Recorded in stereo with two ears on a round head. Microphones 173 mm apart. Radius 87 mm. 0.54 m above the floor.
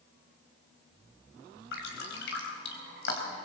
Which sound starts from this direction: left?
Dripping, at 1.7 s.